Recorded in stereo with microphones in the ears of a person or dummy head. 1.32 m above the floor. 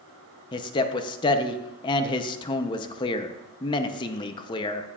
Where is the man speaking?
25° left (ahead or behind), 0.8 m.